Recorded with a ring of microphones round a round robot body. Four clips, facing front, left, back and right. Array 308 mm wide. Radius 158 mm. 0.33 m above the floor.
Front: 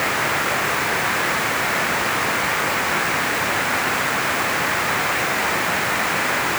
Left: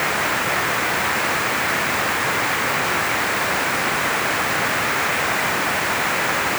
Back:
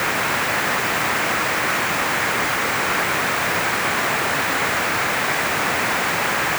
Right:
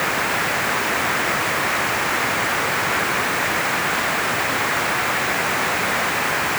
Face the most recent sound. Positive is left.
No sound to turn to.